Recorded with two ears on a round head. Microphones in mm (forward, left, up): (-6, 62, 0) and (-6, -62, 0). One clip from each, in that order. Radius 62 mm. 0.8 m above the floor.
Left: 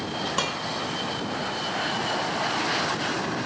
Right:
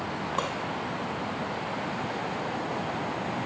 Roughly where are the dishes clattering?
Left.